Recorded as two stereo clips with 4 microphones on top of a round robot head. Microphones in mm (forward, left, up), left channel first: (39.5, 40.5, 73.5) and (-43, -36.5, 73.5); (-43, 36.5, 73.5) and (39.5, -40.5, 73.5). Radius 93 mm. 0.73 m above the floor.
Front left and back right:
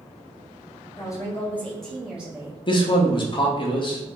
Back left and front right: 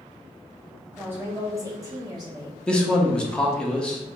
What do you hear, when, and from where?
1.0 s a woman speaking: 20° left, 1.1 m; by 2.6 s 75° right, 1.2 m
2.7 s a man speaking: 60° left, 0.6 m